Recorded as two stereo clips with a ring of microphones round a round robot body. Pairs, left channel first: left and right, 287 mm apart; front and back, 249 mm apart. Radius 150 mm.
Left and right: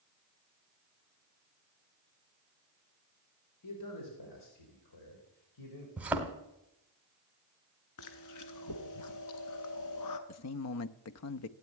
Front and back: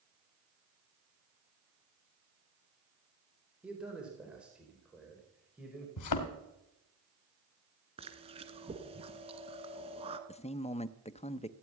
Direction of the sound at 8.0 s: 115° left.